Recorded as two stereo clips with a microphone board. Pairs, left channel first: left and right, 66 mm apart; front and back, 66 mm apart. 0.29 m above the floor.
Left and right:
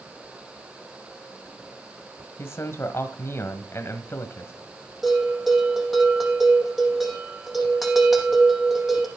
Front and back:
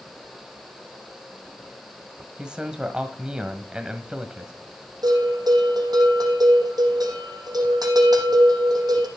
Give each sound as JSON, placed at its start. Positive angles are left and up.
{"t": 2.4, "sound": "a man speaking", "azimuth_deg": 110, "distance_m": 1.4}
{"t": 5.0, "sound": "a bell", "azimuth_deg": 180, "distance_m": 5.0}